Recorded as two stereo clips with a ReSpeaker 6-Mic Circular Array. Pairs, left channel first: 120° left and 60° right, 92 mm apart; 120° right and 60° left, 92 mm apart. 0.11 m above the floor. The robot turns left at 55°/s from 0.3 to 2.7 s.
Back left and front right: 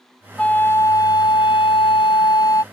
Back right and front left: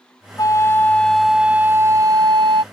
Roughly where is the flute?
Behind.